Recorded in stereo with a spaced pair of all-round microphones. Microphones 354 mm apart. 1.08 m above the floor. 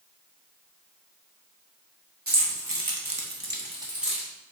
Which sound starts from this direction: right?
Keys jangling, at 2.3 s.